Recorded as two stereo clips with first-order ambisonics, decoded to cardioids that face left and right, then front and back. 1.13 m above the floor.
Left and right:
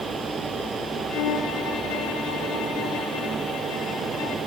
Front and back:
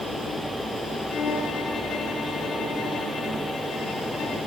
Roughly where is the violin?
Ahead left.